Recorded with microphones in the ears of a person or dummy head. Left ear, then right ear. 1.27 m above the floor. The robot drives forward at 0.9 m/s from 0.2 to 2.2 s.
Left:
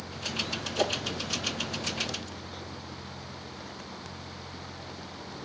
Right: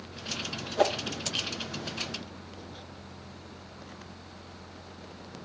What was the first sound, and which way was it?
A whoosh, 30° right (ahead or behind).